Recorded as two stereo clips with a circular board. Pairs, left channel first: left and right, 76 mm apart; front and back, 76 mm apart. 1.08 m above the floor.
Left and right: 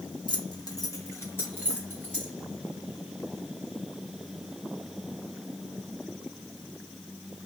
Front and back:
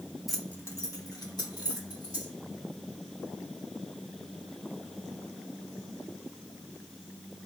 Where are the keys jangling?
95° left, 0.6 m; by 2.3 s 20° left, 2.5 m.